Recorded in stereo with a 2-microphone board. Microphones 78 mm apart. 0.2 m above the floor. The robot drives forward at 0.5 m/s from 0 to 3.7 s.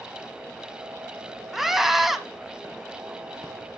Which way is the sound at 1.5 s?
5° right (ahead or behind).